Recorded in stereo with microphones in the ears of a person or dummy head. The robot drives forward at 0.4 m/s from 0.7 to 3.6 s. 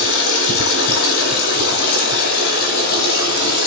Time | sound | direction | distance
0.0 | running water | 70° left (ahead or behind) | 3.5 m